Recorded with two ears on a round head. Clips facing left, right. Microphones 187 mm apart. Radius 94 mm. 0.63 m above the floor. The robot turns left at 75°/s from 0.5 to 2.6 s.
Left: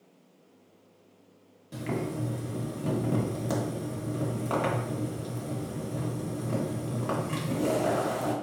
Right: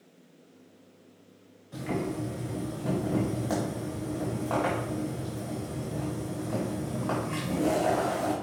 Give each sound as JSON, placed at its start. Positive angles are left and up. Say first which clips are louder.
{"t": 1.7, "sound": "boiling", "louder": "right 1 dB", "azimuth_deg": 110, "distance_m": 1.6}